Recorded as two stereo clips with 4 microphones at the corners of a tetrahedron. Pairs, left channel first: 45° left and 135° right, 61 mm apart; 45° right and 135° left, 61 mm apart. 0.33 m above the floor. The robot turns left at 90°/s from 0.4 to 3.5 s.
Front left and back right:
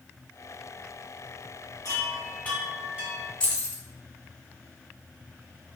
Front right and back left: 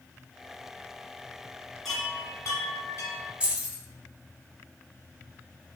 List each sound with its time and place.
1.9 s a chime: 35° left, 1.1 m; by 3.3 s 95° right, 1.1 m
3.4 s keys jangling: 95° left, 0.5 m; by 3.8 s 85° left, 0.5 m